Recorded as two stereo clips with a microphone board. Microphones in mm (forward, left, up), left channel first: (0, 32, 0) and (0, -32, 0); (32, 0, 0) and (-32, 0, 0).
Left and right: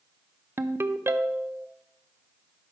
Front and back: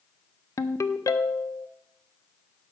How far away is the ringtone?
About 0.5 m.